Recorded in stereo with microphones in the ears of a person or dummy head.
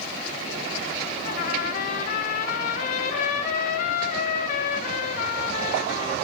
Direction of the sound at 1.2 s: 50° left (ahead or behind).